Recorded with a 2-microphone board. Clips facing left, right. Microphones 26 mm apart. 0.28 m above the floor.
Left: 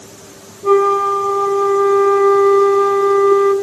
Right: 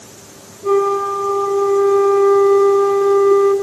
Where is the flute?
25° left (ahead or behind), 2.5 m.